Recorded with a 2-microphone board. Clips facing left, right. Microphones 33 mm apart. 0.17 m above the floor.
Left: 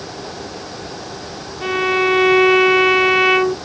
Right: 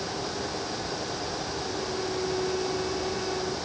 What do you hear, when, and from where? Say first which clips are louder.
1.6 s a violin: left 20 dB; 85° left